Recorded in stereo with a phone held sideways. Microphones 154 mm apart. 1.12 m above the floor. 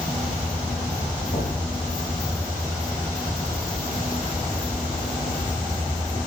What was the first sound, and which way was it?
Knocking, 45° left (ahead or behind).